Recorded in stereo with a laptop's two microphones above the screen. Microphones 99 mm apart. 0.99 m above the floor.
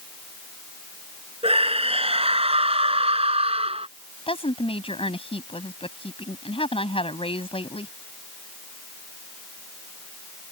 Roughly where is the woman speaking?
Left.